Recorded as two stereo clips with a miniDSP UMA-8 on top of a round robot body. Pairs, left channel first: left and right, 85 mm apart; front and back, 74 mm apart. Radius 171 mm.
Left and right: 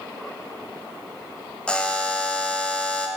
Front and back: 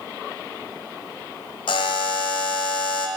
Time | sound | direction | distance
1.7 | a buzzer | 10° left | 0.7 m